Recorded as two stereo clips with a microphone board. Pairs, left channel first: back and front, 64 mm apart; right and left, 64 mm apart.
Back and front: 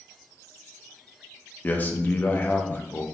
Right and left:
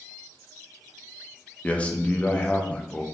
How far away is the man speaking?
About 0.6 m.